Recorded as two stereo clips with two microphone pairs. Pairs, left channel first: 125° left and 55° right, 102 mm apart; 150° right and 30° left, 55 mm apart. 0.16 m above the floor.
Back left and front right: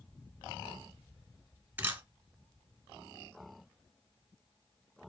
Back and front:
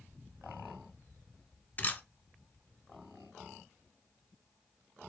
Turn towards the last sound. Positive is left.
turn(degrees=-120)